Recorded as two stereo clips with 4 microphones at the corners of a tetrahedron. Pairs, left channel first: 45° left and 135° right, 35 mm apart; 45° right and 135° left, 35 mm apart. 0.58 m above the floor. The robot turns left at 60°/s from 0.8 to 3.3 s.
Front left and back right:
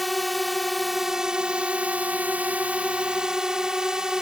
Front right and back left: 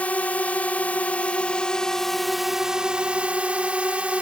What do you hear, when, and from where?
0.0 s a drone: 45° right; by 4.2 s 165° left